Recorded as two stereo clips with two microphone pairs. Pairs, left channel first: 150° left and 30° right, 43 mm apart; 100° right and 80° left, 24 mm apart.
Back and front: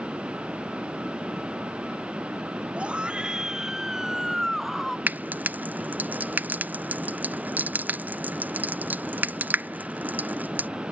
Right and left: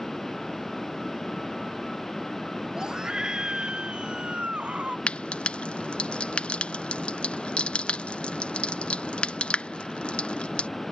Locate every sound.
2.8 s a scream: 20° left; by 5.0 s 60° left
5.1 s frying: 75° right